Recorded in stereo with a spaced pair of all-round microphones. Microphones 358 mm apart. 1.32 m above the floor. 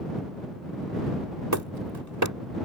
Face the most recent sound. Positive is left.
turn(degrees=-55)  # may be behind; listen again after turning